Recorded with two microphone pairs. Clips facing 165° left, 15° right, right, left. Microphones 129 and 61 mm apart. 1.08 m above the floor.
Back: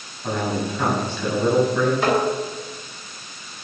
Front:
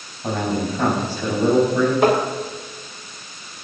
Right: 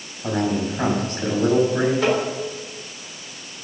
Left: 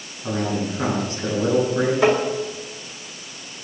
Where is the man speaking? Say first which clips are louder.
Front 2 dB, right 2 dB; 65° right, 6 m.